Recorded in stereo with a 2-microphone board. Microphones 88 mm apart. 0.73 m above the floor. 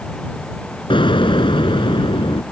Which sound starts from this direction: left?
An explosion, at 0.9 s.